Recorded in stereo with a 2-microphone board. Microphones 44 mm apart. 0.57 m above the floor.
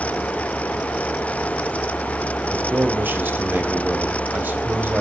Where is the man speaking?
45° right (ahead or behind), 3.5 m.